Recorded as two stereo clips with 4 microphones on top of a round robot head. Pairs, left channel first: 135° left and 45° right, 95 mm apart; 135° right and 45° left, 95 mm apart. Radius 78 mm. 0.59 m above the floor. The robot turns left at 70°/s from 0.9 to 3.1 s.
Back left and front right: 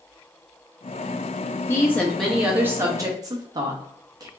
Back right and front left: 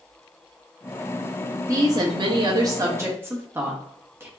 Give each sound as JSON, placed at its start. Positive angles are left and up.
{"t": 1.7, "sound": "a woman speaking", "azimuth_deg": 85, "distance_m": 1.0}